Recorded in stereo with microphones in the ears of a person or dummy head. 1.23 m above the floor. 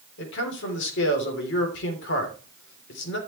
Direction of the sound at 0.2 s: 70° left (ahead or behind).